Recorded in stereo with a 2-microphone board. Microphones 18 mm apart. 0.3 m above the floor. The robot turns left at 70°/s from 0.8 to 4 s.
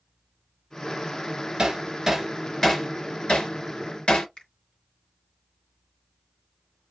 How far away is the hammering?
About 1.8 m.